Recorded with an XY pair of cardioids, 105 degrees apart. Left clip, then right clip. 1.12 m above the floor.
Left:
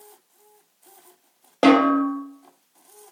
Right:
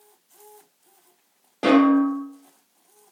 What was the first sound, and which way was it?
A snare drum, 65° left.